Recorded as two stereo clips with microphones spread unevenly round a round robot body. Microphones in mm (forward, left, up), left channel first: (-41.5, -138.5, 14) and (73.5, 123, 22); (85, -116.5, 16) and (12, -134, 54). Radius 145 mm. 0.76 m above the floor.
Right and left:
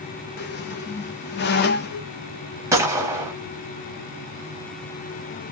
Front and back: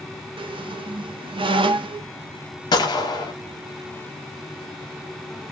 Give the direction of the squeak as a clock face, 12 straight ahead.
5 o'clock.